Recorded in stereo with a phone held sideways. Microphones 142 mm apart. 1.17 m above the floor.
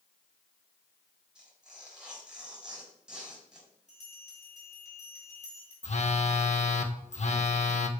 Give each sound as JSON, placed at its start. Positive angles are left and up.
{"t": 1.4, "sound": "tearing paper", "side_deg": -5, "distance_m": 4.5}
{"t": 3.9, "sound": "a bell", "side_deg": 55, "distance_m": 5.0}
{"t": 5.8, "sound": "a phone buzzing", "side_deg": 55, "distance_m": 0.8}